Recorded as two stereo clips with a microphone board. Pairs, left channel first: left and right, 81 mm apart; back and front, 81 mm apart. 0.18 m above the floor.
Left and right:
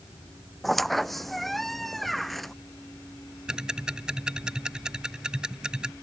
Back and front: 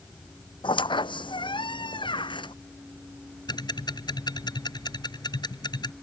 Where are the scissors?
No scissors in this recording.